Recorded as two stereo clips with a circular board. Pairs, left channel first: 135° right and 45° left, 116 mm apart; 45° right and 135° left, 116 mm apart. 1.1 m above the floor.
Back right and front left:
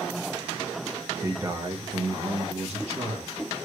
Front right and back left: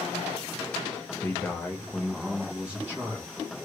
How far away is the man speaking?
About 0.5 m.